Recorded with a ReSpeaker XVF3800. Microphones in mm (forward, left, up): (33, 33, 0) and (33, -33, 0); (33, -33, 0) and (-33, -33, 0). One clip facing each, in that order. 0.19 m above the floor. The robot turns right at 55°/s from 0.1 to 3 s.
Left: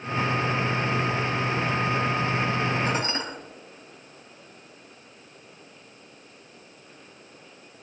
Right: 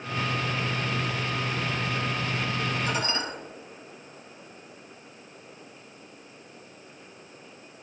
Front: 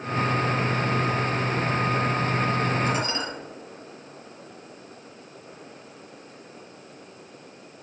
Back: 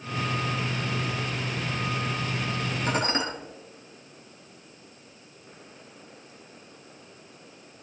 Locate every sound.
2.9 s dishes clattering: 140° left, 3 m; by 3.2 s 145° left, 3 m